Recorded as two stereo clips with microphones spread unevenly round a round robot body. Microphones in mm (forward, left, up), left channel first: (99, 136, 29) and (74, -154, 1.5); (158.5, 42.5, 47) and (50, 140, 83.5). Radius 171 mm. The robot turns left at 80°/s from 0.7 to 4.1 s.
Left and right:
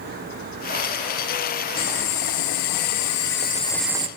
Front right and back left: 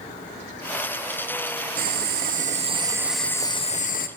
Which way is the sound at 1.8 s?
160° left.